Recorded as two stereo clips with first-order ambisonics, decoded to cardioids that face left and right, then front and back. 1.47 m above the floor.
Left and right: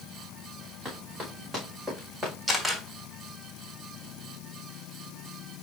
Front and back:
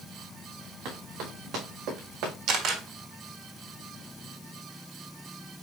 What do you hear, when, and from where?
0.8 s running footsteps: 160° right, 5.5 m; by 2.3 s 170° right, 5 m
2.5 s a camera shutter: 165° right, 1.6 m